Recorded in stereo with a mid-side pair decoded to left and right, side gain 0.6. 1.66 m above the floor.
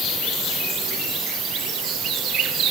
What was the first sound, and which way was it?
Only background noise.